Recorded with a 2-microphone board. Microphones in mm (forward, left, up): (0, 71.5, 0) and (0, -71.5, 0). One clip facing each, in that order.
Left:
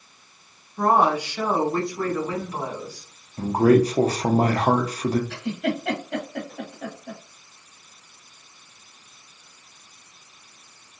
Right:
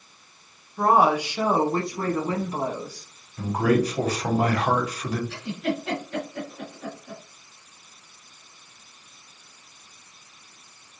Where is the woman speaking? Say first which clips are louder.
Even; centre (ahead or behind), 1.3 m; by 3.1 s 40° right (ahead or behind), 2.0 m.